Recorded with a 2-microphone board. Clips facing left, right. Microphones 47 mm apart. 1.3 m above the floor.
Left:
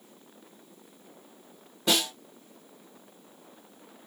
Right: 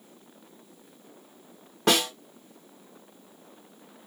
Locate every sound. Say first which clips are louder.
1.9 s a snare drum: right 4 dB; 60° right (ahead or behind), 1.5 m